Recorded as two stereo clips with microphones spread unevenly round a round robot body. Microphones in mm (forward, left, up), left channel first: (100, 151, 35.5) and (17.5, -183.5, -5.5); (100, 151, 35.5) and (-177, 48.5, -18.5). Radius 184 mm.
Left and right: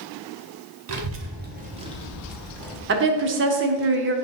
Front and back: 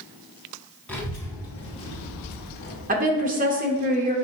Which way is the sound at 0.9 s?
70° right.